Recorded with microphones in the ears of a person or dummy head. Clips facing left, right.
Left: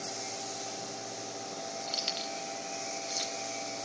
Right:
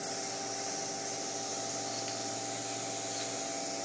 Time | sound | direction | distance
1.9 | keys jangling | 55° left (ahead or behind) | 0.7 m